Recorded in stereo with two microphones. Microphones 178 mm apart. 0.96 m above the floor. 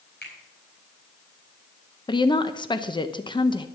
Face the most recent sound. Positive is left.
turn(degrees=25)  # may be behind; listen again after turning